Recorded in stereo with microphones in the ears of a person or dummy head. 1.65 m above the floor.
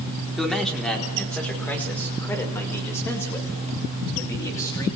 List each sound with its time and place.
0.4 s a man speaking: centre (ahead or behind), 4 m; by 4.9 s 15° left (ahead or behind), 7.5 m